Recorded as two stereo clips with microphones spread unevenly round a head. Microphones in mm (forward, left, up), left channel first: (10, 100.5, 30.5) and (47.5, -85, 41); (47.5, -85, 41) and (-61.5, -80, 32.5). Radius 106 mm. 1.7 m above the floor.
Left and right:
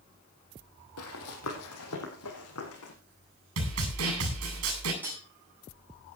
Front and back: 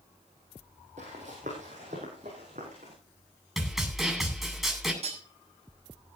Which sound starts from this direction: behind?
Cutlery clinking, at 5.0 s.